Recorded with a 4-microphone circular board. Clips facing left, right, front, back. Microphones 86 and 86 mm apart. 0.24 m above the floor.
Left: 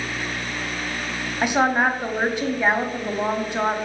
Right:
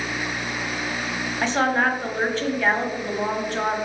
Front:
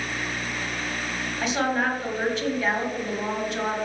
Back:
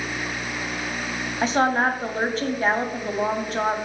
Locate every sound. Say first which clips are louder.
1.4 s a woman speaking: left 2 dB, back 4 dB; 160° left, 1.3 m